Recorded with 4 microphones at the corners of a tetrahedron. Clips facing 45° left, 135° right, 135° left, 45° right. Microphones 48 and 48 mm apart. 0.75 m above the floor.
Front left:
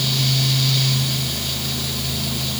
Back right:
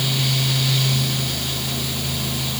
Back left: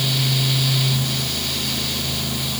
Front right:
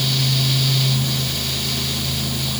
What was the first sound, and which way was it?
Only background noise.